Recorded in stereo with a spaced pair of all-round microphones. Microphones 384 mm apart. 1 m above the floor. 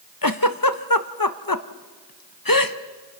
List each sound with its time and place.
0.2 s a giggle: 60° left (ahead or behind), 1.2 m